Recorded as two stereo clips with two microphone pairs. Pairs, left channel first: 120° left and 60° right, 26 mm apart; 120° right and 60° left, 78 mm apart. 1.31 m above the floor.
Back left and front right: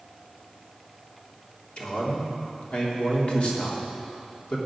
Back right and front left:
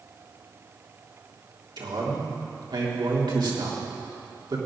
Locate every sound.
1.8 s a man speaking: 75° left, 3 m